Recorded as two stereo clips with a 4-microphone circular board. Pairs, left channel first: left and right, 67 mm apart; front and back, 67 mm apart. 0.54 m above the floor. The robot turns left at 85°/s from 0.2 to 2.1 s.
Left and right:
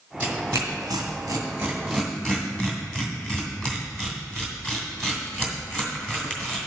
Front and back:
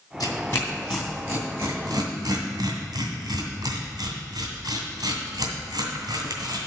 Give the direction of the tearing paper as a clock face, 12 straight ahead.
1 o'clock.